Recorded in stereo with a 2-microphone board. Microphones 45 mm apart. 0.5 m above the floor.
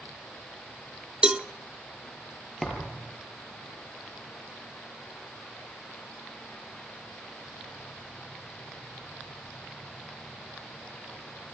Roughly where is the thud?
Centre.